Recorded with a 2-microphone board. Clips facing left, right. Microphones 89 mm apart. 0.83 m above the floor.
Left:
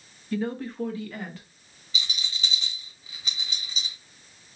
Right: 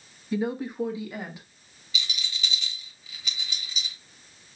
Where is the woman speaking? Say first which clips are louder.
Right 1 dB; 15° right (ahead or behind), 0.5 m; by 1.4 s 10° right (ahead or behind), 1.0 m.